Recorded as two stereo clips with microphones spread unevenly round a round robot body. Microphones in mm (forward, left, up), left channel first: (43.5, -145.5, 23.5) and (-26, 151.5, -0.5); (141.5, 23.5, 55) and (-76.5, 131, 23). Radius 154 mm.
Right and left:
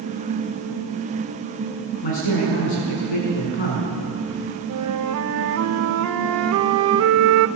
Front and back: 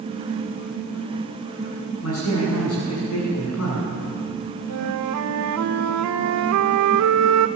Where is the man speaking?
75° right, 8 m.